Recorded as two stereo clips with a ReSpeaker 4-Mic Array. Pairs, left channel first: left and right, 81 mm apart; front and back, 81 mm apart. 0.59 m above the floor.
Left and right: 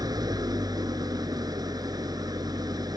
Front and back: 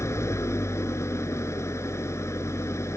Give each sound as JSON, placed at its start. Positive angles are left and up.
{"t": 0.0, "sound": "an engine running", "azimuth_deg": -55}